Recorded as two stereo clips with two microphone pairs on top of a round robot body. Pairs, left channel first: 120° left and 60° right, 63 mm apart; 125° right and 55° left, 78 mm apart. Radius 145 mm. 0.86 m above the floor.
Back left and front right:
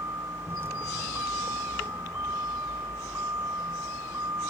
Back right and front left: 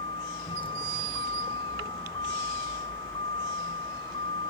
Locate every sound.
0.0 s a vehicle: 115° right